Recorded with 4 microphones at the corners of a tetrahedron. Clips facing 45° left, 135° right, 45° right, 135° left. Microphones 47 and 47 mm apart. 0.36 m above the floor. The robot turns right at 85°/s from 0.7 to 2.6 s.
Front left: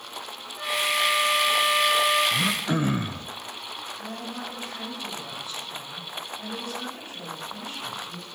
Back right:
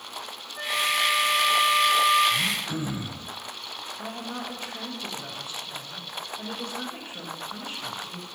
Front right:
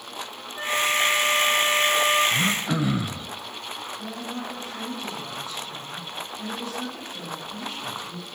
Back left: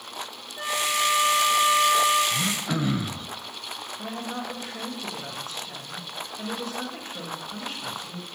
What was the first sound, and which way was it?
A flute, 110° right.